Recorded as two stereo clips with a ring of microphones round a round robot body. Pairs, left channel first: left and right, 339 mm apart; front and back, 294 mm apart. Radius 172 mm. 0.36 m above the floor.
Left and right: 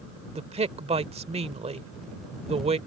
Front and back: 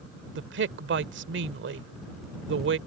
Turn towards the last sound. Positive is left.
turn(degrees=-155)